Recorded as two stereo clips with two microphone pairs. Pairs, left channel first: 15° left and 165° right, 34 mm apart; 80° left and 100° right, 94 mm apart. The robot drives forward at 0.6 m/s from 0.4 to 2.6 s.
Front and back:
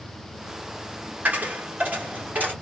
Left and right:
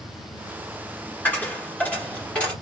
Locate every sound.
1.2 s a dropped coin: 155° left, 1.5 m; by 2.5 s 160° left, 2 m